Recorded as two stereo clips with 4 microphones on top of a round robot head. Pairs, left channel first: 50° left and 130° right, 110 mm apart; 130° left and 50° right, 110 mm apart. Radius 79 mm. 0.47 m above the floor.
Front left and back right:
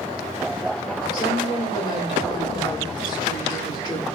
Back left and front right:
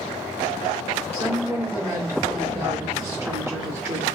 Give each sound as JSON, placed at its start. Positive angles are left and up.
{"t": 1.1, "sound": "a woman speaking", "azimuth_deg": 5, "distance_m": 2.0}